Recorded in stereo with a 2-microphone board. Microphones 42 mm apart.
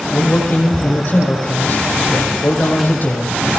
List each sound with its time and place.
0.1 s a man speaking: 45° left (ahead or behind), 10 m